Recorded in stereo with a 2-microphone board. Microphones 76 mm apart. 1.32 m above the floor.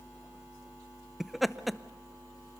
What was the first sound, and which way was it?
Laughter, centre (ahead or behind).